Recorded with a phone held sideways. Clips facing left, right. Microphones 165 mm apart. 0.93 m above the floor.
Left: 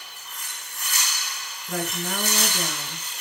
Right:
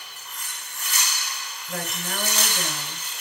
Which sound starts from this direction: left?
A woman speaking, at 1.7 s.